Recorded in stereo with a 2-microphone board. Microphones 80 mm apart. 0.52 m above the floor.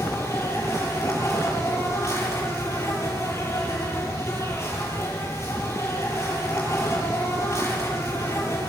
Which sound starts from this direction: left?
An insect, at 0.0 s.